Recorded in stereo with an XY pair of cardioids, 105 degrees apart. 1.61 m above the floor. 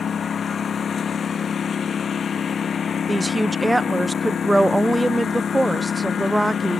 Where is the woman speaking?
Straight ahead.